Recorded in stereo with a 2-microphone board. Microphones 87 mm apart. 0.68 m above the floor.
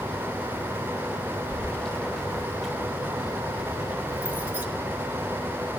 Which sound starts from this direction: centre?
Keys jangling, at 1.5 s.